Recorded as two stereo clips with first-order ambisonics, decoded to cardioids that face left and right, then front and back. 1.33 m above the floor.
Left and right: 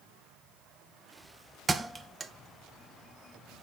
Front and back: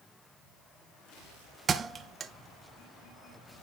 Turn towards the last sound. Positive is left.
turn(degrees=-160)